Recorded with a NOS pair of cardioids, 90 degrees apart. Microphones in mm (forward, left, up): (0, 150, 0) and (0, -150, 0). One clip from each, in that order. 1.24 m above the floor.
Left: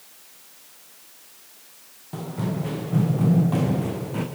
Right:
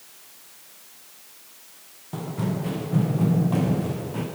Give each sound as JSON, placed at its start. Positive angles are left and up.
{"t": 2.1, "sound": "running footsteps", "azimuth_deg": -5, "distance_m": 5.5}